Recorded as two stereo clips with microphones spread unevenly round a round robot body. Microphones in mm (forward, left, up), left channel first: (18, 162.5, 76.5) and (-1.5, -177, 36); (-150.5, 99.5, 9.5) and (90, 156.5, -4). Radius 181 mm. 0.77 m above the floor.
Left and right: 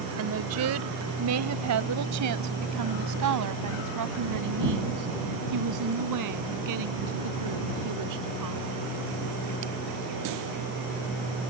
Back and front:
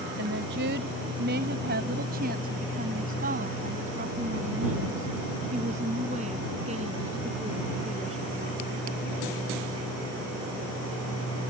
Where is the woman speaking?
45° right; by 8.8 s 60° right.